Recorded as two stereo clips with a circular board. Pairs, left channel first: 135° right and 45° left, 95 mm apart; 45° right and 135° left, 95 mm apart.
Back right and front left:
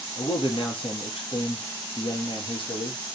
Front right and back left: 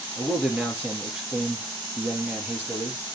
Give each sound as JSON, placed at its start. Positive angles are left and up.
{"t": 0.2, "sound": "a man speaking", "azimuth_deg": -150, "distance_m": 4.0}